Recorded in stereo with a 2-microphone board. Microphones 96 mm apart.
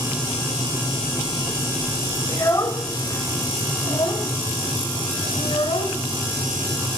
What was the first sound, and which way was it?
A child speaking, 30° left (ahead or behind).